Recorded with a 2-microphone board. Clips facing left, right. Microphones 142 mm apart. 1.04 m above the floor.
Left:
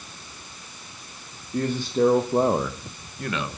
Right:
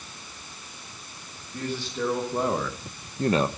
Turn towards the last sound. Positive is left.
turn(degrees=-50)  # may be behind; listen again after turning